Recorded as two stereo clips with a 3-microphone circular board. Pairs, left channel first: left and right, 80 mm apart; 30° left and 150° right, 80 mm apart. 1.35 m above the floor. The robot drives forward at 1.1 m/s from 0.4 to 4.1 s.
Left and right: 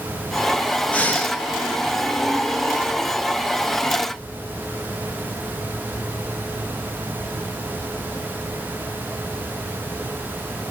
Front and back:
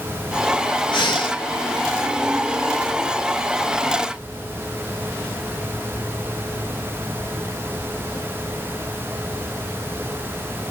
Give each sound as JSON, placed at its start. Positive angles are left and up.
{"t": 0.9, "sound": "breathing", "azimuth_deg": 20, "distance_m": 1.6}